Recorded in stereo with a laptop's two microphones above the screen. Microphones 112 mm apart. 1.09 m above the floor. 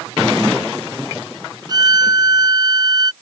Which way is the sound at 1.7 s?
35° right (ahead or behind).